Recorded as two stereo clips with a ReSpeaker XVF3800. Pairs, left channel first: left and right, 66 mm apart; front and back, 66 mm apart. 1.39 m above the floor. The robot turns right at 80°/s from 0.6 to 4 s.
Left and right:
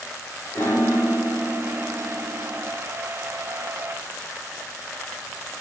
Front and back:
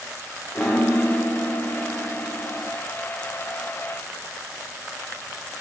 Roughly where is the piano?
Ahead left.